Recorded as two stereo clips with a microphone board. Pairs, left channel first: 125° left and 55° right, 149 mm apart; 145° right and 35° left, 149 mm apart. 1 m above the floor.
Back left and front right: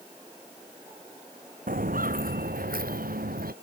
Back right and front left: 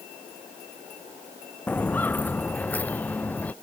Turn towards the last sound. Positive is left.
turn(degrees=-65)